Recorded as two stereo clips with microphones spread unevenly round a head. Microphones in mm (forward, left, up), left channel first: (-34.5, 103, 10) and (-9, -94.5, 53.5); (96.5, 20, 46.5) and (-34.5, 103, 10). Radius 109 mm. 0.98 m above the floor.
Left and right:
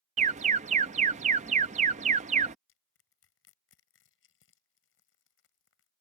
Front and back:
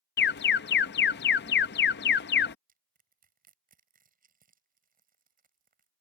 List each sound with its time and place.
0.2 s an alarm: 20° right
2.7 s crushing: 120° left